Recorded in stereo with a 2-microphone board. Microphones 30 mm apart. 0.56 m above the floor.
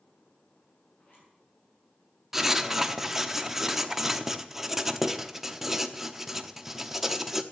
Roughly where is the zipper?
Left.